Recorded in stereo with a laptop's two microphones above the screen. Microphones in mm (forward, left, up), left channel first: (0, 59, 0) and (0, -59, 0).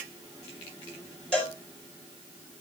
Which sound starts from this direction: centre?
A cowbell, at 1.3 s.